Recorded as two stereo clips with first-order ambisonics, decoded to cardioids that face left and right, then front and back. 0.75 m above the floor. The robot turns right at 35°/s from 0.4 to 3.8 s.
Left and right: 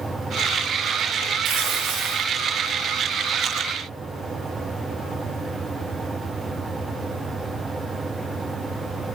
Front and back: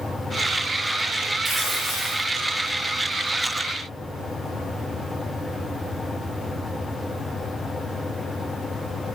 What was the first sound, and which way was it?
Tearing paper, 95° right.